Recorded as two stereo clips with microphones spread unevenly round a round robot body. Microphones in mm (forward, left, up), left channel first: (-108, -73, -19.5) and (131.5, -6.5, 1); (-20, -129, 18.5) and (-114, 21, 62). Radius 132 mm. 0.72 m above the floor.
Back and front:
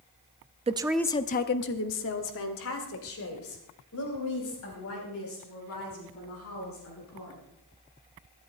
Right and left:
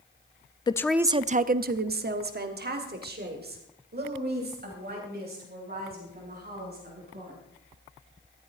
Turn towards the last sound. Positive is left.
turn(degrees=155)